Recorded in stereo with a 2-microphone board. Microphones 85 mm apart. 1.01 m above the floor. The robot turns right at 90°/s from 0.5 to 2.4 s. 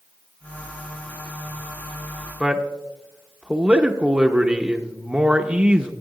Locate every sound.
2.4 s a man speaking: 15° right (ahead or behind), 0.8 m